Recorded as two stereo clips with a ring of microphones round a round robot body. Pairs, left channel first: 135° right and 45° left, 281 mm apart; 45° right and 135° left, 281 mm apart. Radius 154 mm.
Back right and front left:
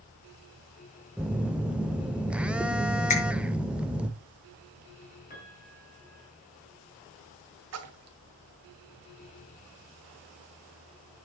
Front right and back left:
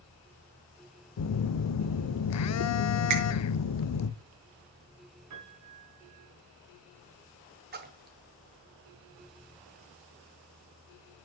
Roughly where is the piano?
Behind.